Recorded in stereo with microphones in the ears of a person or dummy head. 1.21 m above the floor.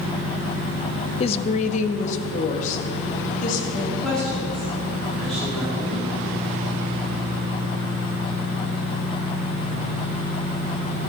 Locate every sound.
1.2 s a woman speaking: 35° left (ahead or behind), 0.6 m; by 3.6 s 45° left (ahead or behind), 2 m
3.7 s a woman speaking: centre (ahead or behind), 2.5 m